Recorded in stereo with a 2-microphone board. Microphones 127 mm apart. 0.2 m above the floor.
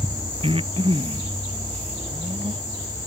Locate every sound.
0.4 s breathing: 45° right (ahead or behind)